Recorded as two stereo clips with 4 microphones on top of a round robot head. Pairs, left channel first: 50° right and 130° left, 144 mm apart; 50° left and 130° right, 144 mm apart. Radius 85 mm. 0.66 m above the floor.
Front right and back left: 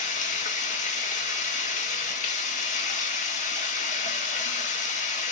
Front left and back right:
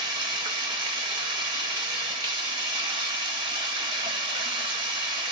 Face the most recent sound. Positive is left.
turn(degrees=-75)